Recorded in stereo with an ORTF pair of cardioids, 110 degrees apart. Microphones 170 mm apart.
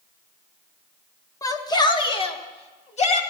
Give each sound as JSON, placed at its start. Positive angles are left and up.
{"t": 1.4, "sound": "a shout", "azimuth_deg": 20, "distance_m": 1.7}